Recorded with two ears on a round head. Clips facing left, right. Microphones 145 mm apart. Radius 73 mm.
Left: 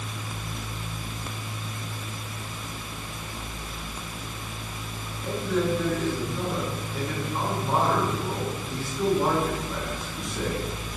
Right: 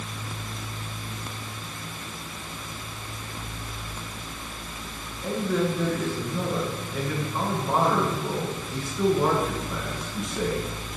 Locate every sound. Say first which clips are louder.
5.2 s a man speaking: right 1 dB; centre (ahead or behind), 8.5 m